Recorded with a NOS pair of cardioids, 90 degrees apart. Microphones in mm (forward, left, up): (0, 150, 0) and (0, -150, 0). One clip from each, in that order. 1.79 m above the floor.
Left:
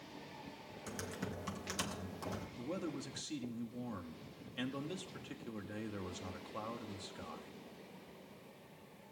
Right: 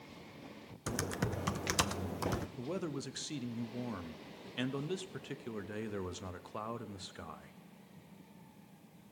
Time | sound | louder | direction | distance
0.9 | typing on a keyboard | right 7 dB | 45° right | 0.7 m
2.6 | a man speaking | right 3 dB | 25° right | 0.9 m